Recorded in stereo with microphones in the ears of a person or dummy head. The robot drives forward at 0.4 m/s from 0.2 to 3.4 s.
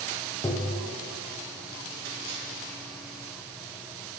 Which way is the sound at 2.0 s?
60° right (ahead or behind).